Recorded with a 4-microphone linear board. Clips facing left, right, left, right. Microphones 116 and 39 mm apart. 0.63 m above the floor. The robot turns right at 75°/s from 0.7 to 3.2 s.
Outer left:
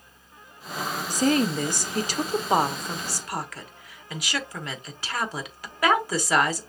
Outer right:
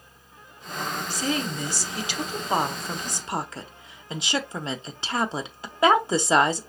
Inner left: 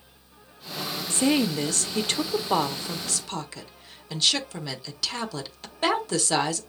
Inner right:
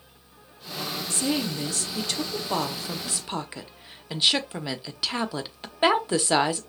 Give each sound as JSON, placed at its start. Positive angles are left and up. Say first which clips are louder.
{"t": 1.1, "sound": "a woman speaking", "louder": "outer left 8 dB, inner left 5 dB", "azimuth_deg": 55, "distance_m": 0.9}